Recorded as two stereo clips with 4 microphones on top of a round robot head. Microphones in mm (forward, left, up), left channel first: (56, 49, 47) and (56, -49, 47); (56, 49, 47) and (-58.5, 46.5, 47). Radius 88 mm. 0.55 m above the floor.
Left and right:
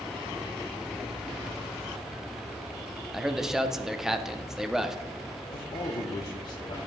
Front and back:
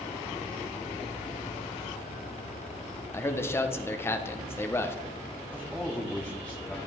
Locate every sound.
3.1 s a man speaking: 15° right, 0.7 m
5.5 s a man speaking: 80° left, 0.9 m